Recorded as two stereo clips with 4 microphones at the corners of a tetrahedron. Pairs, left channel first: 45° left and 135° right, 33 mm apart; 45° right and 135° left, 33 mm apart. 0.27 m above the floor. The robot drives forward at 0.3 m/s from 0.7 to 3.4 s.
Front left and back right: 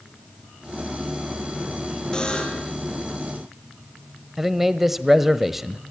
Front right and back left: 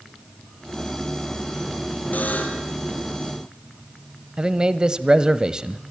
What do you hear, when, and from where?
2.1 s a buzzer: 20° right, 5 m
4.4 s a man speaking: 150° left, 1.2 m